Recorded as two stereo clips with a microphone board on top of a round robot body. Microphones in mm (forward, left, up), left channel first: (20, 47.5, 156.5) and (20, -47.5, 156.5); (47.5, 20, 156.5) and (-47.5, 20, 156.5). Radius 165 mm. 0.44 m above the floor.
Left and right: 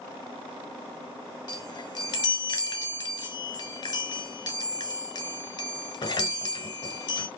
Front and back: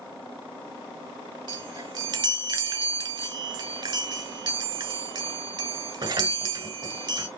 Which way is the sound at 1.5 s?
135° left.